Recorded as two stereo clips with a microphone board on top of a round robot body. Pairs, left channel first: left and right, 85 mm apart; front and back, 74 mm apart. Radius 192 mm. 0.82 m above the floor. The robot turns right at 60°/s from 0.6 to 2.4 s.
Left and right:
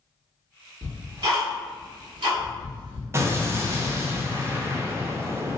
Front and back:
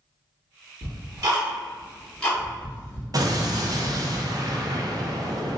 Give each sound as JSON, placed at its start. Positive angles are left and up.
{"t": 0.8, "sound": "ticking", "azimuth_deg": -160, "distance_m": 0.9}
{"t": 3.1, "sound": "an explosion", "azimuth_deg": -145, "distance_m": 0.7}